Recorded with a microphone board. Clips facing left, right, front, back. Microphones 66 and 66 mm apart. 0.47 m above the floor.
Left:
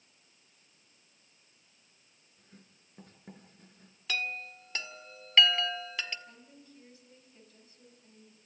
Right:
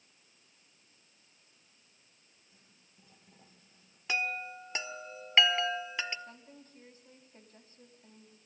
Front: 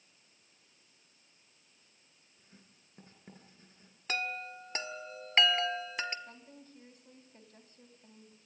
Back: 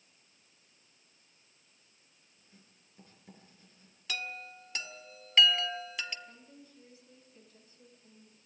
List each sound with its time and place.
2.4 s writing: 55° left, 5.5 m
4.1 s a chime: 30° right, 1.4 m
6.3 s a woman speaking: 40° right, 3.5 m